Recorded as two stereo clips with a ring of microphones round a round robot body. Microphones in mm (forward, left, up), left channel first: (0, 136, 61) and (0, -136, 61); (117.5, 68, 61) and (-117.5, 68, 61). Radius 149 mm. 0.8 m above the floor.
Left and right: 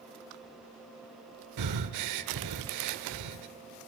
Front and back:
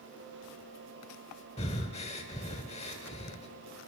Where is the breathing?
70° right, 0.9 m.